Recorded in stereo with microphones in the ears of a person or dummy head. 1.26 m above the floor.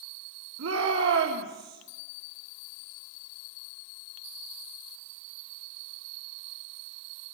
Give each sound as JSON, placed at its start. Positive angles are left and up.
{"t": 0.6, "sound": "a shout", "side_deg": -75, "distance_m": 3.5}